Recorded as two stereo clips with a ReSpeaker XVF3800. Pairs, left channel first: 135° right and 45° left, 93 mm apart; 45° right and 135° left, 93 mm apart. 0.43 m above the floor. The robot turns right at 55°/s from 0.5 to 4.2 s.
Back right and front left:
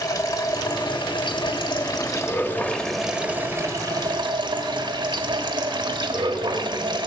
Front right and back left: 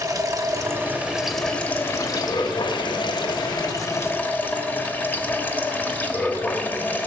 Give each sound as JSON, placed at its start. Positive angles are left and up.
{"t": 0.0, "sound": "running water", "azimuth_deg": 180, "distance_m": 1.2}